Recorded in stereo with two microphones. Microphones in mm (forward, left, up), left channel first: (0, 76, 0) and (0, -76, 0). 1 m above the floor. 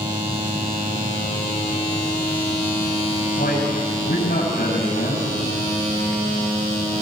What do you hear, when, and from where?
3.4 s a man speaking: 85° left, 8 m